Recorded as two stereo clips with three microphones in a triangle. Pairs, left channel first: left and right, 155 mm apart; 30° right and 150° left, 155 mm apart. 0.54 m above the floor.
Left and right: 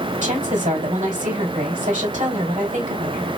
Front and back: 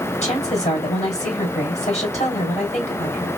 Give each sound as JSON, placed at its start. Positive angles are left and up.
{"t": 0.2, "sound": "a woman speaking", "azimuth_deg": -70, "distance_m": 3.0}